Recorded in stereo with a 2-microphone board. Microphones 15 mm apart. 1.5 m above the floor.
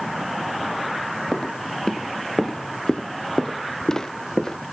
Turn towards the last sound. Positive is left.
turn(degrees=35)  # may be behind; listen again after turning